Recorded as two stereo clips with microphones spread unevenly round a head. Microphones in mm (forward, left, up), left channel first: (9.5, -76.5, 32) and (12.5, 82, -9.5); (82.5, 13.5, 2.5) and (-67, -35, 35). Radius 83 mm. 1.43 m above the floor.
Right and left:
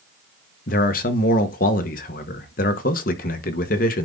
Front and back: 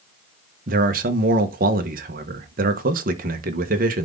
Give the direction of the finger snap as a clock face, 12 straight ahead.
I don't hear a finger snap.